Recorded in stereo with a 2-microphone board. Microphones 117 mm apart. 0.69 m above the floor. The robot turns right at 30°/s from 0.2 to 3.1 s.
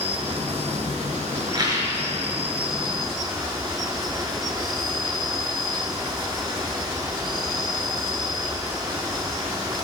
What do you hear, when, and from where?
0.0 s an insect: 125° right, 1.0 m; by 9.8 s 40° right, 1.0 m
1.5 s a rattle: 40° right (ahead or behind), 3.5 m; by 2.0 s 25° right (ahead or behind), 3.5 m